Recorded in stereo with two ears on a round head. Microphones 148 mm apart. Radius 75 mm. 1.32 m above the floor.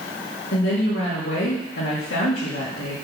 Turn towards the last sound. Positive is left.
turn(degrees=75)  # may be behind; listen again after turning